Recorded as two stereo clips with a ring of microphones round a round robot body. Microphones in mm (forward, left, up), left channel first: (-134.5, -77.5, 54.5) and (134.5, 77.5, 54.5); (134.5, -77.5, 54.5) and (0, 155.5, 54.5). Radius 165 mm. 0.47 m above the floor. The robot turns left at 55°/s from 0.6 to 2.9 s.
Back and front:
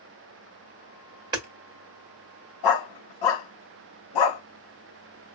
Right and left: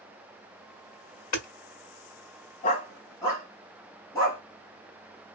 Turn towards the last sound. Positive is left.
turn(degrees=-140)